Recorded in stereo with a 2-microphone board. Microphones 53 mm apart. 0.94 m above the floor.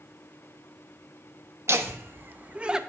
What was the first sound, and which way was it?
Laughter, 55° right (ahead or behind).